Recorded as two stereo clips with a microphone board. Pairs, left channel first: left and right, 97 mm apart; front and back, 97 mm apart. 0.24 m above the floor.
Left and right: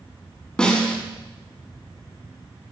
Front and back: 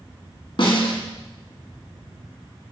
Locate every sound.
0.6 s a snare drum: 10° left, 1.6 m